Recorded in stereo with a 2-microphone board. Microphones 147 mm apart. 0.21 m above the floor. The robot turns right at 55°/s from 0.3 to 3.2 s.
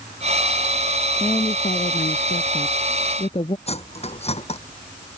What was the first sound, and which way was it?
A woman speaking, 30° left.